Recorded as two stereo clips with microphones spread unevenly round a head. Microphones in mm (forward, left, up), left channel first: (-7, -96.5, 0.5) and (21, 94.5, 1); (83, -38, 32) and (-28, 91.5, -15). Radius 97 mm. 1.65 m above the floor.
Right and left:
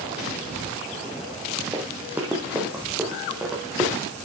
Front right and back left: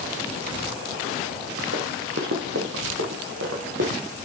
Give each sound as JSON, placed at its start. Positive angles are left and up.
{"t": 1.7, "sound": "running footsteps", "azimuth_deg": 160, "distance_m": 2.5}